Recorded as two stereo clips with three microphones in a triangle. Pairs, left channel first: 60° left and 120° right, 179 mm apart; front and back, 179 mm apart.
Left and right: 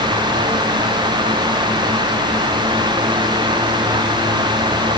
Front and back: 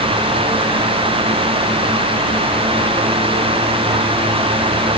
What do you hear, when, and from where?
Only background noise.